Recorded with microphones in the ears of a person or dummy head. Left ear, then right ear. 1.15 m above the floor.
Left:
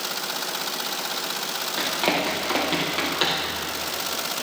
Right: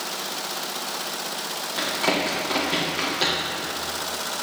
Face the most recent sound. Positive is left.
turn(degrees=40)  # may be behind; listen again after turning